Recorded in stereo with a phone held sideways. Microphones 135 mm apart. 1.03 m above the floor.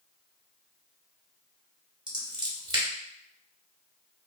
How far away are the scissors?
About 1.1 m.